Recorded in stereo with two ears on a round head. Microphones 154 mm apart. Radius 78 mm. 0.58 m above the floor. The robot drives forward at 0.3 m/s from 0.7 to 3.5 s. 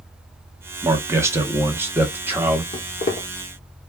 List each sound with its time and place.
0.8 s a man speaking: 15° right (ahead or behind), 0.6 m; by 2.6 s 10° right (ahead or behind), 0.9 m
2.7 s footsteps: 40° left (ahead or behind), 1.1 m; by 3.3 s 35° left (ahead or behind), 1.2 m